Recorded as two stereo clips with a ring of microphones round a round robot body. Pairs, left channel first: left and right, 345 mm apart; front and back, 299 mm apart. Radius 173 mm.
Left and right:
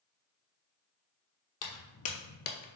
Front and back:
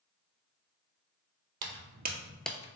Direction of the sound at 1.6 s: 140° left.